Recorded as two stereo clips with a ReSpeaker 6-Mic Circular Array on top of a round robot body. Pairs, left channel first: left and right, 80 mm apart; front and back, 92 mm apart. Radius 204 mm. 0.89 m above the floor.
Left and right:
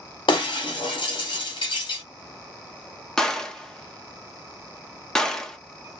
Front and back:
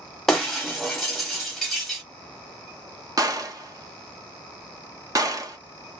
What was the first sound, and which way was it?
Breaking glass, 85° left.